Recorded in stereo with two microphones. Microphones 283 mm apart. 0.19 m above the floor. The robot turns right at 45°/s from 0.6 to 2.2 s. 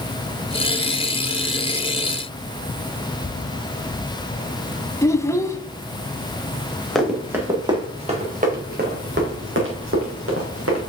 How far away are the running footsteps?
About 2.5 m.